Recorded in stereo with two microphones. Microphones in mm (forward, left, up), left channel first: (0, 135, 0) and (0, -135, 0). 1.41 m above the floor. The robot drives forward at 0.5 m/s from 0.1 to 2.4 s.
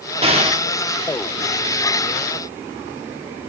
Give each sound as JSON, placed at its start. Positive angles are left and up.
{"t": 0.2, "sound": "an explosion", "side_deg": -20, "distance_m": 1.0}